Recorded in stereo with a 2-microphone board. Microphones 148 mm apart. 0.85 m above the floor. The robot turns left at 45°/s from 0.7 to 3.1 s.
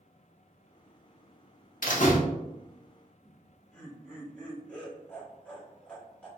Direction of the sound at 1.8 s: 70° left (ahead or behind).